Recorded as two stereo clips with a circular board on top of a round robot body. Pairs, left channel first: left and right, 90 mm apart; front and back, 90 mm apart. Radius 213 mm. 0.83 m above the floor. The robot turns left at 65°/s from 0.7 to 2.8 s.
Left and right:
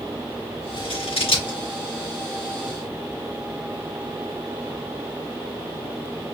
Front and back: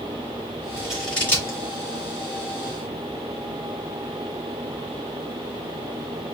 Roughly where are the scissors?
Left.